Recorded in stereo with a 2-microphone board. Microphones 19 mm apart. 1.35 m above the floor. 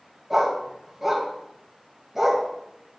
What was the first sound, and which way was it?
A dog barking, 15° right (ahead or behind).